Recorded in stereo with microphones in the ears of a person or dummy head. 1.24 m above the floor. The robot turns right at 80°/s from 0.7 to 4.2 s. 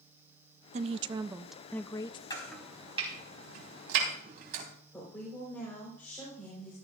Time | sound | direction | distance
0.7 | a woman speaking | 65° right | 0.6 m
2.3 | chopping | 25° left (ahead or behind) | 3.5 m
4.9 | a woman speaking | 10° left (ahead or behind) | 4.5 m